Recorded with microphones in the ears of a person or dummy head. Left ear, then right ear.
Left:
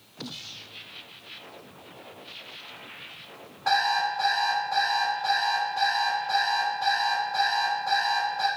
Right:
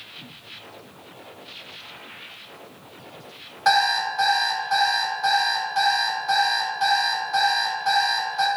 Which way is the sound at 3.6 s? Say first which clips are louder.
Right 4 dB; 50° right (ahead or behind).